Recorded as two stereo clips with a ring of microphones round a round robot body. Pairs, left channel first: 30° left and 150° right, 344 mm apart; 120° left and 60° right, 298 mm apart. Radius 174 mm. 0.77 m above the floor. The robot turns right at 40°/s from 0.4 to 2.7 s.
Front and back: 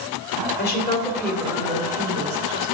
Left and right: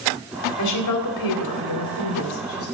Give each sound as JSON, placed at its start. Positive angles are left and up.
{"t": 0.6, "sound": "a woman speaking", "azimuth_deg": 90, "distance_m": 2.0}